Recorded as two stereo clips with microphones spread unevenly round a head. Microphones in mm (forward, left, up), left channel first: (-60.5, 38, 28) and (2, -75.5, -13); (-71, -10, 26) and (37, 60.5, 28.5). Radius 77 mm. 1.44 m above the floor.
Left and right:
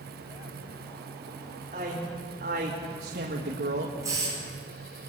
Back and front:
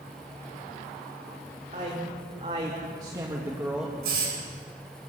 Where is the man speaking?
15° right, 3 m; by 3.9 s 55° right, 1.6 m.